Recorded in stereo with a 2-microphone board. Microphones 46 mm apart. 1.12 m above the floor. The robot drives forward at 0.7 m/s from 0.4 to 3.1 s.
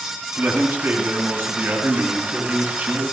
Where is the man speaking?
60° right (ahead or behind), 7.5 m; by 3.0 s 50° right (ahead or behind), 8.5 m.